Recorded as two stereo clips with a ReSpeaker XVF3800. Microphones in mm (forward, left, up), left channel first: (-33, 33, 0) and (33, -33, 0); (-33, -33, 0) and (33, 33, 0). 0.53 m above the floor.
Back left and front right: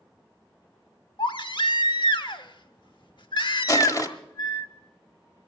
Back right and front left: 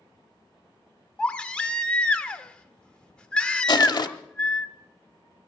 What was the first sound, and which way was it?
A baby crying, 150° left.